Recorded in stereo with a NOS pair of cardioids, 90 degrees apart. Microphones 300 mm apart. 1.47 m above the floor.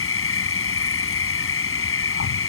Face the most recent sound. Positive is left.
turn(degrees=50)